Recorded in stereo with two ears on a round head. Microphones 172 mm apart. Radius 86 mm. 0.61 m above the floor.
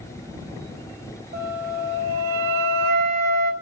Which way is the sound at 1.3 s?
50° right (ahead or behind).